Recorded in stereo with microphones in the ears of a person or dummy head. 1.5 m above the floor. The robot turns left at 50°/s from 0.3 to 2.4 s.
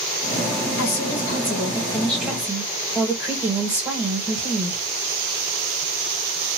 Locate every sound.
0.8 s a woman speaking: 70° left, 1.4 m; by 4.8 s 10° right, 1.4 m